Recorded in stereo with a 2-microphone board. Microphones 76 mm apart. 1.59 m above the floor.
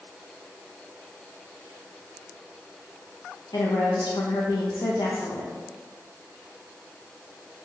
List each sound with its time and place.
3.5 s a woman speaking: 75° left (ahead or behind), 0.5 m